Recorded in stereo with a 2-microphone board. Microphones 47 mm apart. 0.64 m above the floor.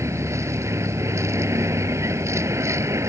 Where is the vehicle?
80° right.